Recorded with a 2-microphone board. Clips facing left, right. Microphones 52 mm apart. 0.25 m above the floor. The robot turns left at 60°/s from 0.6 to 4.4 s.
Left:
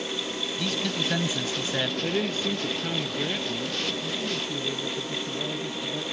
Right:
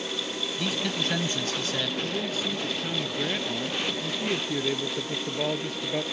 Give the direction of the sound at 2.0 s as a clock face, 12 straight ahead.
10 o'clock.